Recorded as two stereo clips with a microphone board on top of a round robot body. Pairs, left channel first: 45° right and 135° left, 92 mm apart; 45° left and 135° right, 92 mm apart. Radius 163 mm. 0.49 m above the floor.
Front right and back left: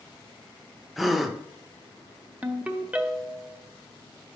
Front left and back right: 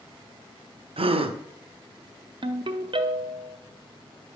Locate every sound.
1.0 s a gasp: 135° right, 0.7 m
2.4 s a ringtone: 150° right, 0.9 m